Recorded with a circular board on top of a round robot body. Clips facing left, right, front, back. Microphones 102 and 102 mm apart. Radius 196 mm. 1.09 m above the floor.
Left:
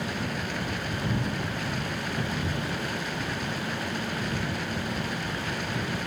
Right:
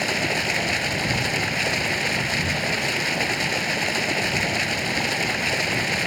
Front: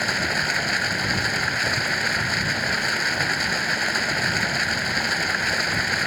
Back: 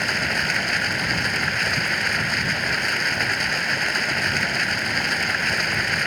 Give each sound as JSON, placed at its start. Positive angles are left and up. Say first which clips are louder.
{"t": 0.0, "sound": "running water", "louder": "right 6 dB, even", "azimuth_deg": -85}